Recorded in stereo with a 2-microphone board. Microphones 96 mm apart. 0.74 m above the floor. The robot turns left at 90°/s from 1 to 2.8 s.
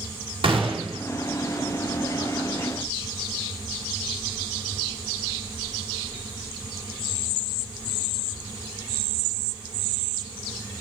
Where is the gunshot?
70° right (ahead or behind), 1.8 m; by 1.0 s 65° right (ahead or behind), 1.8 m.